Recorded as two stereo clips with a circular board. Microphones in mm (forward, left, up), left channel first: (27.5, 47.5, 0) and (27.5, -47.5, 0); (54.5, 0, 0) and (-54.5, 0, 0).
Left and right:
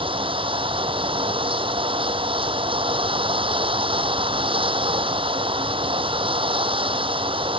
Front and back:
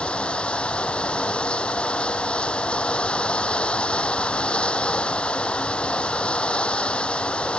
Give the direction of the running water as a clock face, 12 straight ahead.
3 o'clock.